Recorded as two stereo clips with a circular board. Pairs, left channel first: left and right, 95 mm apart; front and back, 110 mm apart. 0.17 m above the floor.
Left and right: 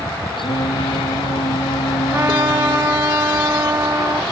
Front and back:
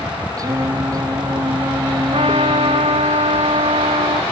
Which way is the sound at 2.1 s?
150° right.